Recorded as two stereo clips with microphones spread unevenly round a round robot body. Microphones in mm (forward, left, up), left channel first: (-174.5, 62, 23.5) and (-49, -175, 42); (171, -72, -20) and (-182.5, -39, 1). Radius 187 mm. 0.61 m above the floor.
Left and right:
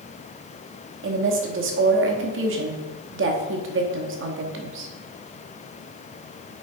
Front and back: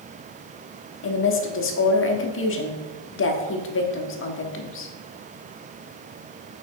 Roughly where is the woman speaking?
Ahead right.